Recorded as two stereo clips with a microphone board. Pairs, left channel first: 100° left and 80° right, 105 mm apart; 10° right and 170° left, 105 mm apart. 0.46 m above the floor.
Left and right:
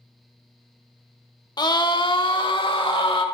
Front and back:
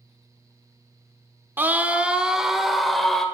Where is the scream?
110° left, 1.0 m; by 3.2 s 75° left, 1.5 m.